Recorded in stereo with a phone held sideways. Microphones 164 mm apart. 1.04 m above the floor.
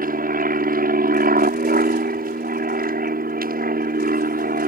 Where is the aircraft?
60° right (ahead or behind).